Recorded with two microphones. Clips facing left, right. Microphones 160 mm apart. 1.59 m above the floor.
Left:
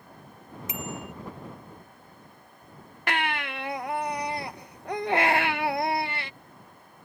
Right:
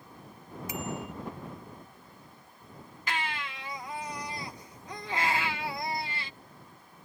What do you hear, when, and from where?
0.7 s a bicycle bell: 20° left (ahead or behind)
3.1 s a baby crying: 60° left (ahead or behind)